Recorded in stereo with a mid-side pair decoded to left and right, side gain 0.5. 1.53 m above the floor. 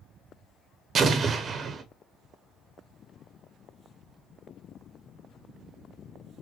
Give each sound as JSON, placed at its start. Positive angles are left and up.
{"t": 0.9, "sound": "an explosion", "azimuth_deg": -45, "distance_m": 0.7}